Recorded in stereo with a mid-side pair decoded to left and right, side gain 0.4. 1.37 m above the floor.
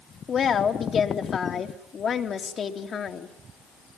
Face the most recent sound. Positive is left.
turn(degrees=55)